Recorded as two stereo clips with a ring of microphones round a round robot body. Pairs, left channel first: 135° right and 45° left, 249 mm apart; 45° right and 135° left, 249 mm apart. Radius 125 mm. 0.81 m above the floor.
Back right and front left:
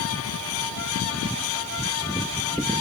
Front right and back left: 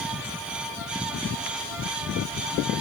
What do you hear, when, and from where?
Only background noise.